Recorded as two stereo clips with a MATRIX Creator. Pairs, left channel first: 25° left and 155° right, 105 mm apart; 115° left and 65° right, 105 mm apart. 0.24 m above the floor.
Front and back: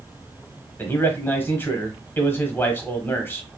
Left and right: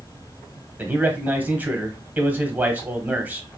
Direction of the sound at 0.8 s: 15° right.